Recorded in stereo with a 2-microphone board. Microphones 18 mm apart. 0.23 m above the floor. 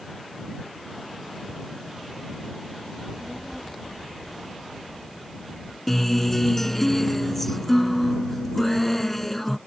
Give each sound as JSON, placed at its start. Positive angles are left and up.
{"t": 3.0, "sound": "a child speaking", "side_deg": -5}
{"t": 5.9, "sound": "a guitar", "side_deg": 5}